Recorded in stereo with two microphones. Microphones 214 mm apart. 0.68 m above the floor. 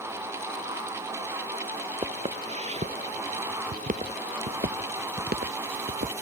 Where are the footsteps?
25° right (ahead or behind); by 6.1 s 45° right (ahead or behind).